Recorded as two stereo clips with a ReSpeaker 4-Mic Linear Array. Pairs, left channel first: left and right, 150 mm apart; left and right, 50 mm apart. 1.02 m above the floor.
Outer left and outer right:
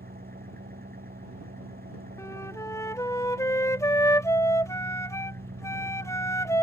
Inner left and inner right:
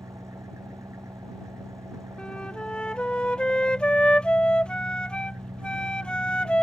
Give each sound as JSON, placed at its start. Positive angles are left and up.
{"t": 0.0, "sound": "an engine running", "side_deg": -85}
{"t": 2.2, "sound": "a flute", "side_deg": 20}